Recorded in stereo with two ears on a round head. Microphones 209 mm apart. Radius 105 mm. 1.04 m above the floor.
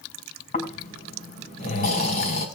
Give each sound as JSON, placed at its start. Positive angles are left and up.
{"t": 0.5, "sound": "snoring", "side_deg": 40, "distance_m": 5.5}